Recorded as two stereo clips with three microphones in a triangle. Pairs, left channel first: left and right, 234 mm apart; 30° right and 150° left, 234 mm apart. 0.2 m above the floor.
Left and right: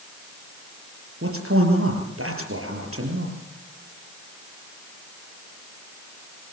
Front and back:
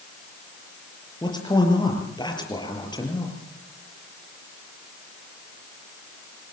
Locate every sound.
1.2 s a man speaking: 100° right, 6 m